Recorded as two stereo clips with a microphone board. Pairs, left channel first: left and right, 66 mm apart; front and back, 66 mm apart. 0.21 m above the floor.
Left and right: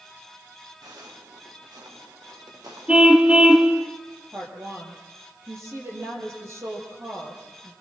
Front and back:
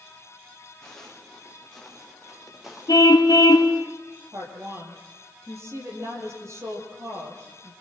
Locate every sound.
0.8 s footsteps: 80° right, 6 m; by 3.9 s 100° right, 9 m
2.9 s a car horn: 20° right, 2 m
4.3 s a woman speaking: 135° right, 6 m